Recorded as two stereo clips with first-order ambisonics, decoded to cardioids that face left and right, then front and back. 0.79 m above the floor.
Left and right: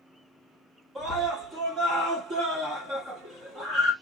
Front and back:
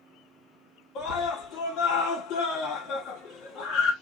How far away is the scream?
About 2 m.